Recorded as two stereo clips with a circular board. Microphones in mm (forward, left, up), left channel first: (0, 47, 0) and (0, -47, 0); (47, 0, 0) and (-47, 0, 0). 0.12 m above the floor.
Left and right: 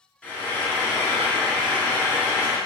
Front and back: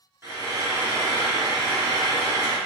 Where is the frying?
155° left, 1.6 m.